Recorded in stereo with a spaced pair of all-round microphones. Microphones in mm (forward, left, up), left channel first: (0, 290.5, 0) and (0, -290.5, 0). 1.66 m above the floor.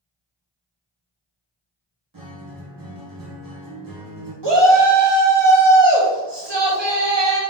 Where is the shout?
45° right (ahead or behind), 1.0 m.